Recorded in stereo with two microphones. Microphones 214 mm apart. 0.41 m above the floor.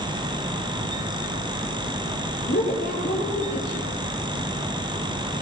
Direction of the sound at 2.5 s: 50° left (ahead or behind).